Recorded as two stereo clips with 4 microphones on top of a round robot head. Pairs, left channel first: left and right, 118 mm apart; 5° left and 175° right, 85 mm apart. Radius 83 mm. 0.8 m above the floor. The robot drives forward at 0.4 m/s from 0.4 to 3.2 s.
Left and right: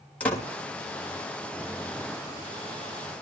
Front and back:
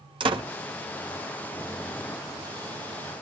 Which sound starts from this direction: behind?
A door slam, at 0.2 s.